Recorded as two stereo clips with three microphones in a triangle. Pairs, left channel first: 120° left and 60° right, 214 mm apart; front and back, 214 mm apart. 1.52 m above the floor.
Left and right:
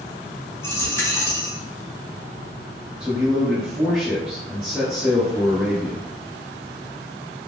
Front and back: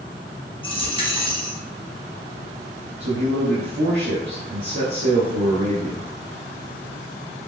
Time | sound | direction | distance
0.6 | a dropped coin | 50° left | 1.0 m
3.0 | a man speaking | 145° right | 0.8 m